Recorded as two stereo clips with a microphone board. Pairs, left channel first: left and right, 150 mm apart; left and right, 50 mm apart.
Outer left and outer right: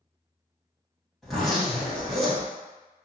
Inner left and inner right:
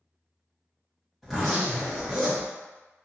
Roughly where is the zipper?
Centre.